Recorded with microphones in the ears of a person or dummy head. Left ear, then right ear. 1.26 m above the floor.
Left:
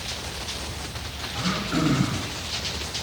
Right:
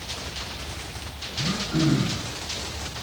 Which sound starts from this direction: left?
Throat clearing, at 1.3 s.